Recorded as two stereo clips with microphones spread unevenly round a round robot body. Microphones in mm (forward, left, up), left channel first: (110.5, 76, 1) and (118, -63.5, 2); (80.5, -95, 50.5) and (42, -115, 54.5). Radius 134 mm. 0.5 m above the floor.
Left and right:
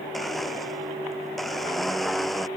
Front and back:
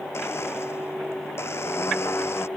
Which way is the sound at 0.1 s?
5° left.